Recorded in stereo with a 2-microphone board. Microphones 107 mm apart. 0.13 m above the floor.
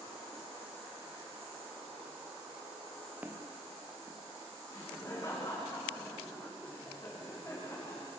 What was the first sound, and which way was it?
Footsteps, 15° right (ahead or behind).